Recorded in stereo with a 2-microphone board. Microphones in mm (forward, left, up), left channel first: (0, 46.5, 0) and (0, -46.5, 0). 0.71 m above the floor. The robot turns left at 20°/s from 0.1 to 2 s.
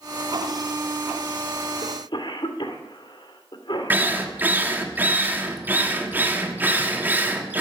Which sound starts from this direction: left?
A cough, at 1.8 s.